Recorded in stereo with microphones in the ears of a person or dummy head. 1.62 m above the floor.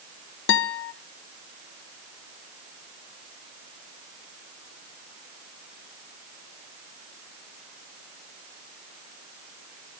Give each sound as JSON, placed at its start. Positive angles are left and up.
{"t": 0.5, "sound": "a guitar", "side_deg": 75, "distance_m": 1.1}